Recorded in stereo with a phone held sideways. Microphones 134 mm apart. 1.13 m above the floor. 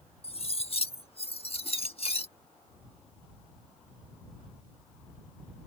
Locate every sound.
0.2 s cutlery clinking: 50° left (ahead or behind)